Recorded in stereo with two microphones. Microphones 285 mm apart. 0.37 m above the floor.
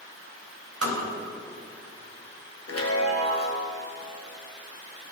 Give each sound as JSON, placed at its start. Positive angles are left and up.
{"t": 0.8, "sound": "tapping", "side_deg": -55, "distance_m": 2.0}
{"t": 2.7, "sound": "a chime", "side_deg": 60, "distance_m": 1.2}